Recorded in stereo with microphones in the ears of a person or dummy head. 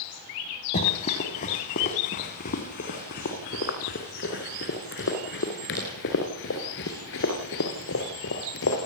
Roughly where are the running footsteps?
Left.